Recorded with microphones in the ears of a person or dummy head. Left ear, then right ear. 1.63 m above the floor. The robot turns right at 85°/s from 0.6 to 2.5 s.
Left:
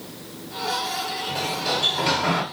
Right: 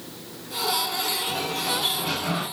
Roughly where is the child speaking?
No child speaking in this recording.